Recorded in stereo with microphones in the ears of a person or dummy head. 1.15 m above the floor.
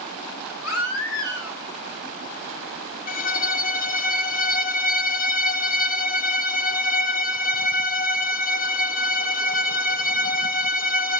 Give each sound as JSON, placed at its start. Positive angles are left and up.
{"t": 0.6, "sound": "a baby crying", "side_deg": 80, "distance_m": 3.0}
{"t": 3.1, "sound": "a violin", "side_deg": 50, "distance_m": 1.2}